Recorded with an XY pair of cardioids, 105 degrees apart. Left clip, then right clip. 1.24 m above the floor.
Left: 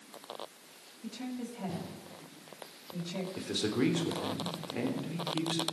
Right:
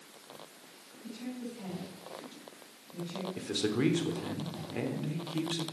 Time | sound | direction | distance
1.0 | a woman speaking | 60° left | 6 m
3.4 | a man speaking | 5° right | 3 m